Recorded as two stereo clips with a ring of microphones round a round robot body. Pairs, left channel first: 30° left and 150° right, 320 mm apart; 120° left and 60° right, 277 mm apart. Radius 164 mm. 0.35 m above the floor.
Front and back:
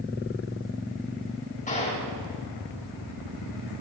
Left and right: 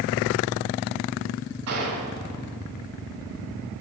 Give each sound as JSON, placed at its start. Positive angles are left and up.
{"t": 1.7, "sound": "a gunshot", "azimuth_deg": -35, "distance_m": 5.5}